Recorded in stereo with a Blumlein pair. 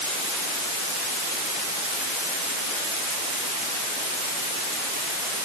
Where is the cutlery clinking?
I don't hear cutlery clinking.